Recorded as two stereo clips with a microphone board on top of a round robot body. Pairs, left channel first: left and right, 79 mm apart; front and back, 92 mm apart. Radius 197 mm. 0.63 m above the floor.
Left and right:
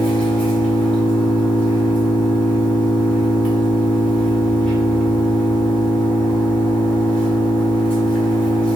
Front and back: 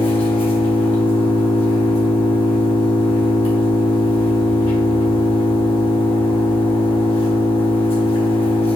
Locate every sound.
0.0 s an engine running: 15° left, 1.2 m